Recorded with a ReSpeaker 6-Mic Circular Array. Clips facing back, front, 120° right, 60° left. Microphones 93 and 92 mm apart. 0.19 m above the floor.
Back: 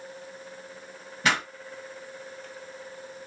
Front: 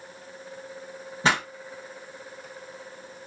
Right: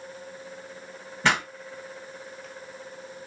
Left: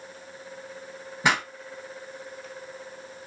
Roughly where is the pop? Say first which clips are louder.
Front 2 dB, even; ahead.